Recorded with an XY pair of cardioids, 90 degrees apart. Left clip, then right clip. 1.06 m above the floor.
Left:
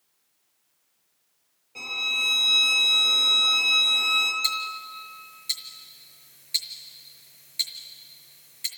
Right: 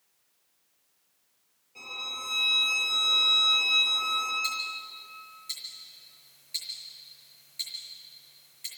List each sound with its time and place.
1.8 s a violin: 70° left, 6 m
4.4 s ticking: 65° left, 4.5 m